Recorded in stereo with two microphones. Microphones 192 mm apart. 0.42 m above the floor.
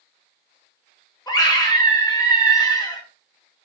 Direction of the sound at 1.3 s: 20° left (ahead or behind).